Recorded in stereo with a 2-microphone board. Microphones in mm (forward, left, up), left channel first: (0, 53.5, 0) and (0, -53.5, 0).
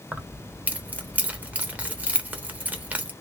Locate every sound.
0.1 s keys jangling: 15° right (ahead or behind), 0.7 m